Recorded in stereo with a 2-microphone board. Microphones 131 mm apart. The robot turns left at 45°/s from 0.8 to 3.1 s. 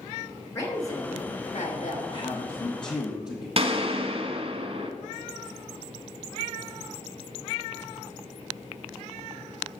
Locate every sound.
0.6 s a woman speaking: 155° left, 3 m; by 2.0 s 100° left, 3 m
2.1 s a man speaking: 90° left, 1.5 m; by 3.5 s 45° left, 1.5 m
3.6 s a gunshot: 50° right (ahead or behind), 0.9 m